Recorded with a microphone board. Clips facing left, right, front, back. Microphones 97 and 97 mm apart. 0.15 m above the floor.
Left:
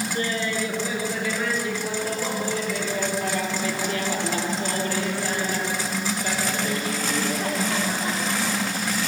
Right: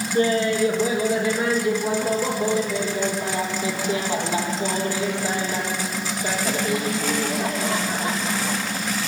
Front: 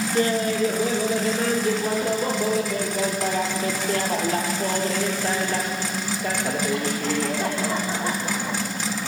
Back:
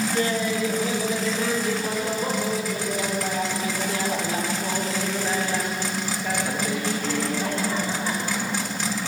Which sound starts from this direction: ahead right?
Laughter, at 0.1 s.